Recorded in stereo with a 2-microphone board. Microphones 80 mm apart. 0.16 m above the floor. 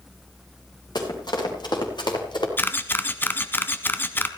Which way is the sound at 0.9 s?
65° left (ahead or behind).